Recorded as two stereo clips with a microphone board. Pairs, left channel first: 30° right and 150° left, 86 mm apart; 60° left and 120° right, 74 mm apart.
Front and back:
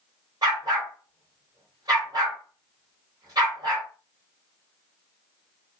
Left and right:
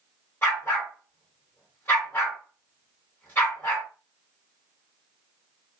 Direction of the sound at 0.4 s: 120° left.